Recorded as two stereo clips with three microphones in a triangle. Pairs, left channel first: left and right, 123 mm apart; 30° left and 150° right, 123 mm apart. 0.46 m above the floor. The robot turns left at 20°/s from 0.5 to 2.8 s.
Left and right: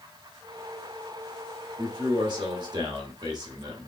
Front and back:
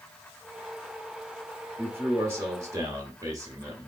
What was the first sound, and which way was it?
A man speaking, 85° right.